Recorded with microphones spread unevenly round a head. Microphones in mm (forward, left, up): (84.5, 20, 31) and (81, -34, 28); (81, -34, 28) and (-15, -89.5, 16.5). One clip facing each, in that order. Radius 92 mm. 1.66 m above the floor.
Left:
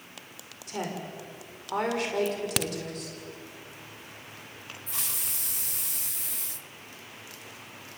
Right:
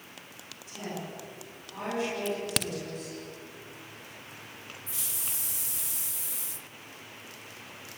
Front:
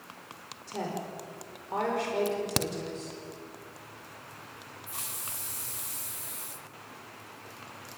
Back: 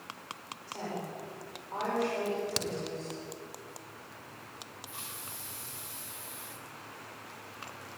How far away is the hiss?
About 0.6 m.